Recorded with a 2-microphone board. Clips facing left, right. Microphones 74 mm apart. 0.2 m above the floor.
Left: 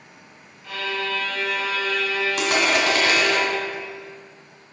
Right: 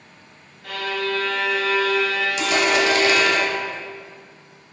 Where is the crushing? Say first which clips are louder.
Right 2 dB; 45° left (ahead or behind), 2.5 m.